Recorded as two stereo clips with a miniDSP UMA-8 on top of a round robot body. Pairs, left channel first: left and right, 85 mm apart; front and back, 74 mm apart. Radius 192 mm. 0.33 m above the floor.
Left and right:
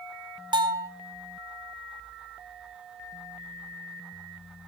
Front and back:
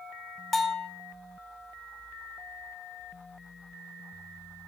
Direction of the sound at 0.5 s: 85° right.